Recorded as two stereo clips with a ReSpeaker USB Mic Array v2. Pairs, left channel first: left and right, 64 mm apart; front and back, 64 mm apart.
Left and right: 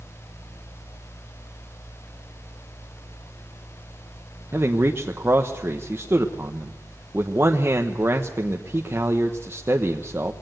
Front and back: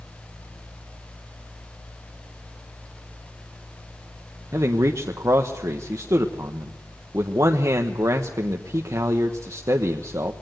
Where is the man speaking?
145° right, 1.2 m.